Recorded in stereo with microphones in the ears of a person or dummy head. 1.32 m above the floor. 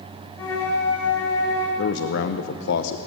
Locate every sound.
0.4 s a flute: 15° left (ahead or behind), 5 m
1.8 s a man speaking: 65° left (ahead or behind), 0.9 m